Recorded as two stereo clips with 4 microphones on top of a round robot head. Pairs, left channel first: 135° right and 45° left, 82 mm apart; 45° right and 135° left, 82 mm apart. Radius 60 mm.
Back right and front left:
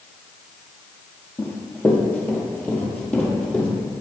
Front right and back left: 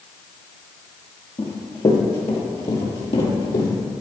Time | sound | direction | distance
1.4 | running footsteps | 85° right | 2.5 m